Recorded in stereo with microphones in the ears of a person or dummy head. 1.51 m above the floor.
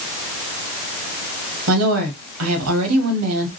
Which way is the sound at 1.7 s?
85° right.